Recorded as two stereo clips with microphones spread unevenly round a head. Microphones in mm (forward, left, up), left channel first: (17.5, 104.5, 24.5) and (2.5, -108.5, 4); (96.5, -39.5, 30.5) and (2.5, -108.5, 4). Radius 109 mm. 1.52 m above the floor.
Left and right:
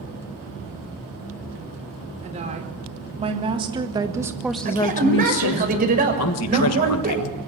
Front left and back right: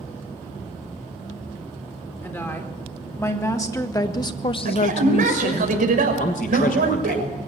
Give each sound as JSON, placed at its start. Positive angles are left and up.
{"t": 2.2, "sound": "a woman speaking", "azimuth_deg": -35, "distance_m": 4.5}
{"t": 4.7, "sound": "a man speaking", "azimuth_deg": -150, "distance_m": 5.5}
{"t": 6.2, "sound": "a man speaking", "azimuth_deg": 75, "distance_m": 1.6}